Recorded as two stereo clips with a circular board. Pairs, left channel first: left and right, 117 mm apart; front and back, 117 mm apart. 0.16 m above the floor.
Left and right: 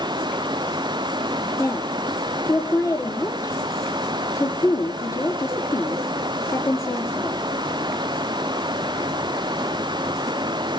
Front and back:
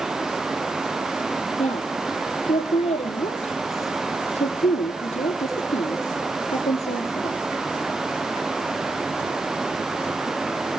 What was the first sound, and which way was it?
A woman speaking, 25° left.